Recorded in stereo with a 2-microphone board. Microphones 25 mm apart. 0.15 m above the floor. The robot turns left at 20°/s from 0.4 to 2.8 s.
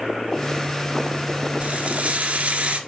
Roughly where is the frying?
Right.